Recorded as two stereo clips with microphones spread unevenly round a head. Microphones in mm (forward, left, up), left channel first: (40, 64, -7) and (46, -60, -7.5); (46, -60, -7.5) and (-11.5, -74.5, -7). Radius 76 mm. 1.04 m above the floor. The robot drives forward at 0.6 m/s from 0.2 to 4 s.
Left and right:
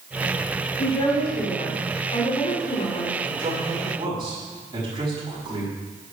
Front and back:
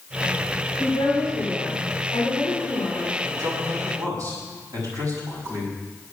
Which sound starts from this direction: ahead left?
A woman speaking, at 0.8 s.